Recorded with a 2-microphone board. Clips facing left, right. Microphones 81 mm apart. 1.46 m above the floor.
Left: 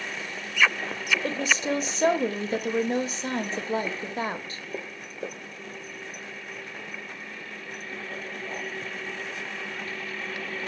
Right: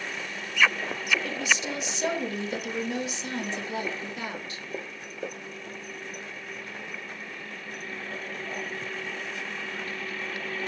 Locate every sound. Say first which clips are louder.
1.2 s a woman speaking: left 3 dB; 40° left (ahead or behind), 0.7 m